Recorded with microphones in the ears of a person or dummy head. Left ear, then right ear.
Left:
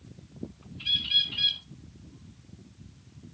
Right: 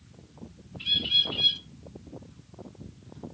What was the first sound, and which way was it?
A bird, 10° right (ahead or behind).